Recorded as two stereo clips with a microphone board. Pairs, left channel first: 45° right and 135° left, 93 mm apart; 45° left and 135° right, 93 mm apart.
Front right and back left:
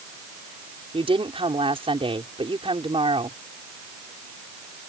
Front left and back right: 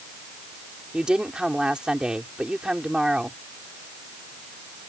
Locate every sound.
0.9 s a woman speaking: 145° left